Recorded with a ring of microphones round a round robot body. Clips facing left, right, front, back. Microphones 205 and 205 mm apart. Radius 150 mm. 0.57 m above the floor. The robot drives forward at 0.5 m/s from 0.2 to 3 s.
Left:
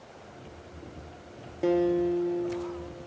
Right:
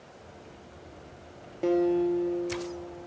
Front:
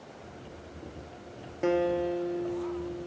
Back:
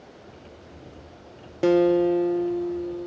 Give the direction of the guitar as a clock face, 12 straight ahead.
6 o'clock.